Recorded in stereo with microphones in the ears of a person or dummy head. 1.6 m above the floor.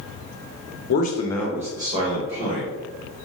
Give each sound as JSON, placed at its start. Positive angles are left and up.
{"t": 0.9, "sound": "a man speaking", "side_deg": 55, "distance_m": 0.8}